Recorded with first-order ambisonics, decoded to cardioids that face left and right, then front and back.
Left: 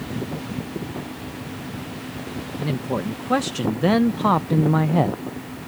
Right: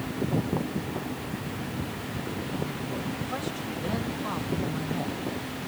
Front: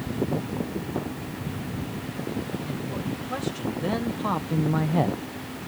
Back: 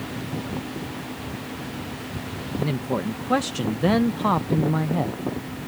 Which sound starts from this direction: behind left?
A man speaking, at 2.6 s.